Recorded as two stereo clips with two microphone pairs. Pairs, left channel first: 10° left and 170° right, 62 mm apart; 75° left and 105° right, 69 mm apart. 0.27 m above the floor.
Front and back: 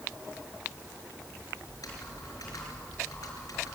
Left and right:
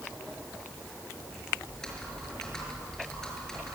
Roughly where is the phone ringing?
No phone ringing in this recording.